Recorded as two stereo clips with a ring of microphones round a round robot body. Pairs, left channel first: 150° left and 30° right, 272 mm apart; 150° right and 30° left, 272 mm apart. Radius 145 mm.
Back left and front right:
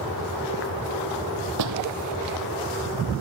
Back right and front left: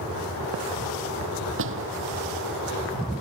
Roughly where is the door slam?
Ahead.